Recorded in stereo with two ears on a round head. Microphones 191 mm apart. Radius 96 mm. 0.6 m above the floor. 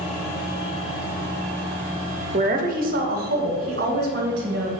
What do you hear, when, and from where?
2.3 s a woman speaking: 35° right (ahead or behind), 0.8 m; by 4.7 s 50° right (ahead or behind), 2.5 m